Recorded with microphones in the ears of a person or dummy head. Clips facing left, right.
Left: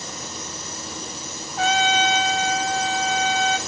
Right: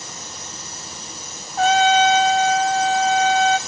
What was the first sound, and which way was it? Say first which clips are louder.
A trumpet: right 6 dB; 40° right (ahead or behind).